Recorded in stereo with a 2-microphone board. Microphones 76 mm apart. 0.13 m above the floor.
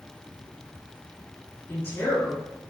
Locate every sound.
1.7 s a woman speaking: 35° left (ahead or behind), 1.4 m